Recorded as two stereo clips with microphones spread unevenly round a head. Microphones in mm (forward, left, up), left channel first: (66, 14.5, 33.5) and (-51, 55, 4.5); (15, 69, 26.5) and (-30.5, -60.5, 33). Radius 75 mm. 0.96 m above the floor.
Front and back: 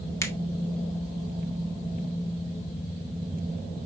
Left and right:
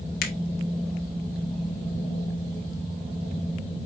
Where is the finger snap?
50° left, 1.3 m.